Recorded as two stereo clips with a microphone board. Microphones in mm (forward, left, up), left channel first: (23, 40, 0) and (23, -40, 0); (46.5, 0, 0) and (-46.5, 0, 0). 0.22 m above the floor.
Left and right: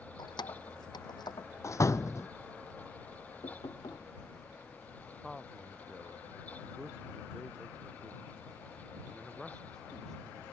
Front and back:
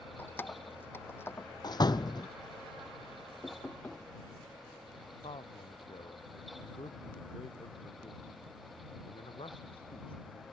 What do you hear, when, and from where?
0.2 s keys jangling: 70° left; by 1.5 s 65° left
1.6 s a door slam: 40° left
3.4 s knocking: 75° left
5.2 s a man speaking: 5° left